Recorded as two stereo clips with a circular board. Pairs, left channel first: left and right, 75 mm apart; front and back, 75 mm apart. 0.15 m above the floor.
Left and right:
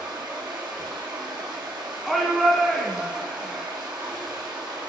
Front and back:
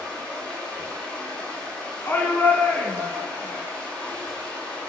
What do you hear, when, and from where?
0.0 s running water: 75° right, 2.5 m
2.0 s a shout: straight ahead, 1.2 m